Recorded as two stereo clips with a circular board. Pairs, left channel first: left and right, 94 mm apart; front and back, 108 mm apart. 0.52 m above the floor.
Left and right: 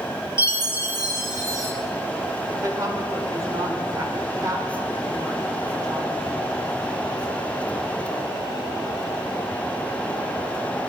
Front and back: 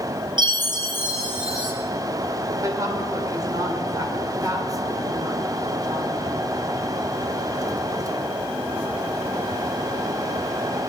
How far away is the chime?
About 2 m.